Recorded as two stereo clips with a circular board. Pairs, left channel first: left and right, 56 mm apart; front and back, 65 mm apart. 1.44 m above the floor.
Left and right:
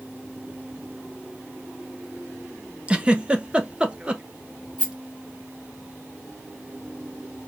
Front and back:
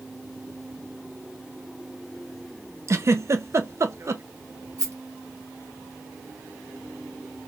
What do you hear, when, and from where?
2.9 s a giggle: 155° right, 0.6 m
4.8 s a rattle: 155° right, 1.9 m